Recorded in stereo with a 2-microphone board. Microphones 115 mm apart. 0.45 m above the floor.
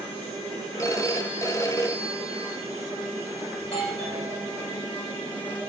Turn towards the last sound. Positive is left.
turn(degrees=60)  # may be behind; listen again after turning